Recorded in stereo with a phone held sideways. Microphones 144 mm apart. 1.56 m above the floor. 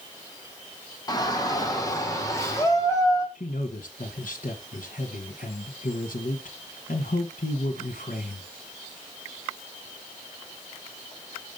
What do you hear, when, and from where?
1.1 s a shout: 25° left (ahead or behind), 1.6 m; by 3.2 s 20° left (ahead or behind), 3.5 m
3.4 s a man speaking: 65° left (ahead or behind), 1.2 m